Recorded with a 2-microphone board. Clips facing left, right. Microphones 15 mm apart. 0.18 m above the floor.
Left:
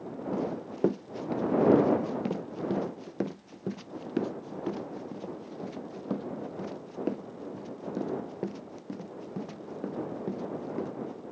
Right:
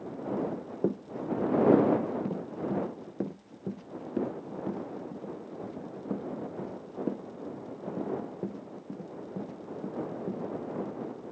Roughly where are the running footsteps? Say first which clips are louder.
Even; left.